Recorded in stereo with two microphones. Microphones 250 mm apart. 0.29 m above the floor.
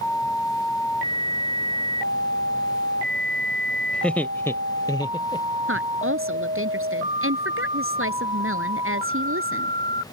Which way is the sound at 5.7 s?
60° right (ahead or behind).